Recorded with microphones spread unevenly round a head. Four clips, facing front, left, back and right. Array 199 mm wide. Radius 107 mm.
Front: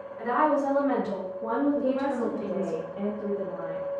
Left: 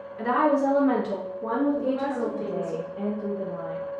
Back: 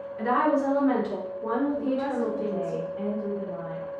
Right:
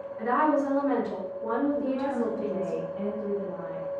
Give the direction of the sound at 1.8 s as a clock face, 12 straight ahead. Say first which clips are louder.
Left 2 dB, front 1 dB; 11 o'clock.